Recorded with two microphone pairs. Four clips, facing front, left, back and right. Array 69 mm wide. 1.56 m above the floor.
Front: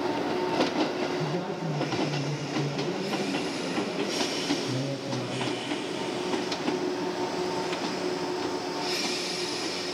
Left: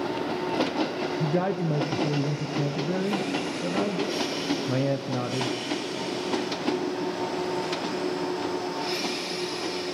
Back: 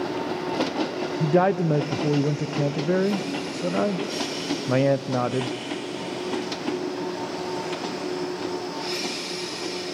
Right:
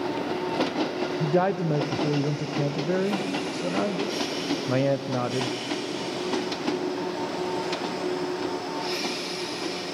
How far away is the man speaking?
About 0.6 m.